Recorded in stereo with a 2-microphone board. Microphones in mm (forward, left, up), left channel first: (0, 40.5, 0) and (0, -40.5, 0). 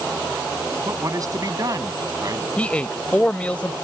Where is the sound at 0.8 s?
45° right (ahead or behind).